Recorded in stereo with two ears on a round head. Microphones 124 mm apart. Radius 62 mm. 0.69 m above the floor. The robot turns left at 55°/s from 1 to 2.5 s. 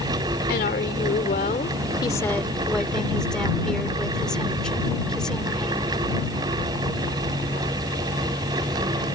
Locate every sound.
0.5 s a woman speaking: 85° left; by 6.0 s 5° left